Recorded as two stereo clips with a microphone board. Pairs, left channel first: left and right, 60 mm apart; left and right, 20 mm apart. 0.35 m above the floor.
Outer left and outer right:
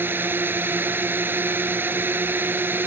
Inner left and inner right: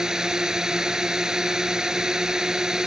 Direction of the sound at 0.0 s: 35° right (ahead or behind).